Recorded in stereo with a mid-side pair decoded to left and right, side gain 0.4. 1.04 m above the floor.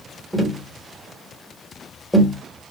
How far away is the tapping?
About 1.4 m.